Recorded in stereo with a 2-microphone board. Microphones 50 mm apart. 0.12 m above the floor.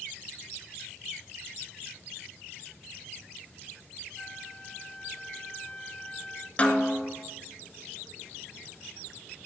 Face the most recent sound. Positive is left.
turn(degrees=25)  # may be behind; listen again after turning